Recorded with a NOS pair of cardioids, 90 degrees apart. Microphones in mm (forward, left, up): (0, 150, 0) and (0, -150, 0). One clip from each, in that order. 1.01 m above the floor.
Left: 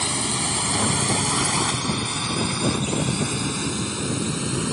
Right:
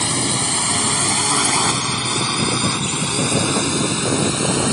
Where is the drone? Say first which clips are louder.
Right 4 dB; 25° right; by 4.7 s 50° right.